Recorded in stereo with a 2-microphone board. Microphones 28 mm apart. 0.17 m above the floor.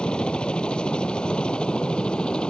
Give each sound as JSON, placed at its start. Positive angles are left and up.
{"t": 0.0, "sound": "a helicopter", "side_deg": 35}